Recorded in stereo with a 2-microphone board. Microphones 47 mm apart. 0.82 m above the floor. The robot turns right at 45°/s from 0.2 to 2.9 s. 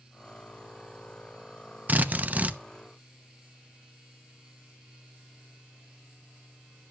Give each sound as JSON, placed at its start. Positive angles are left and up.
{"t": 1.9, "sound": "a drill", "azimuth_deg": -90, "distance_m": 0.7}